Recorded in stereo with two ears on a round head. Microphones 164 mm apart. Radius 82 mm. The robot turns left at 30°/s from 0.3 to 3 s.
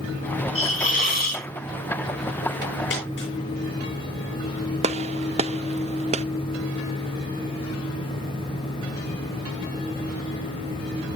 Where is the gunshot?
35° right (ahead or behind), 0.6 m.